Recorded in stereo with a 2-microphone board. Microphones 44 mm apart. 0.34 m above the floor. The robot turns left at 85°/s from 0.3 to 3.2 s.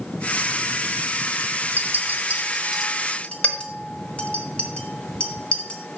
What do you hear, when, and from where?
1.8 s a clink: 55° right (ahead or behind), 1.3 m; by 6.0 s 30° left (ahead or behind), 1.3 m